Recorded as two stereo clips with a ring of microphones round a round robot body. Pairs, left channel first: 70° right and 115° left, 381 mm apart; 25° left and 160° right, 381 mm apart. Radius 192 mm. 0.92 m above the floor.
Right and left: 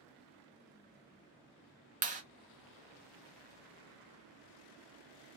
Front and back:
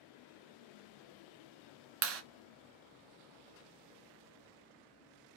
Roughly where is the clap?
Behind.